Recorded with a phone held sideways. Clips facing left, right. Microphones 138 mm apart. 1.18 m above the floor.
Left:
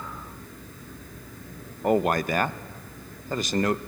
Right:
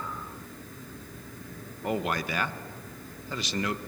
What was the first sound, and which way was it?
A man speaking, 45° left (ahead or behind).